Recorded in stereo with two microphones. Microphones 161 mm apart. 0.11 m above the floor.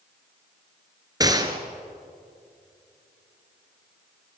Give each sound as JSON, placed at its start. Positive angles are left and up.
{"t": 1.2, "sound": "a gunshot", "side_deg": -25, "distance_m": 2.0}